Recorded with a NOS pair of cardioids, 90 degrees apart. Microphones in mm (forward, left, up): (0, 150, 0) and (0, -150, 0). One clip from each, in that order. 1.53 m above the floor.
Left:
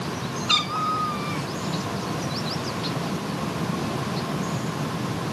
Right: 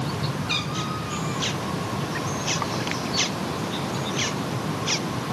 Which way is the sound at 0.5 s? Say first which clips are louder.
Left 7 dB; 50° left.